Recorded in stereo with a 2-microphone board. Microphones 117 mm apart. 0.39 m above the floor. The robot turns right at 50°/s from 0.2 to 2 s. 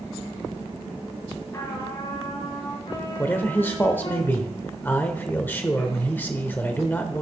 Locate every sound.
1.5 s a trumpet: 25° left (ahead or behind), 4.5 m; by 4.2 s 50° left (ahead or behind), 4.5 m
3.2 s a man speaking: 15° left (ahead or behind), 0.9 m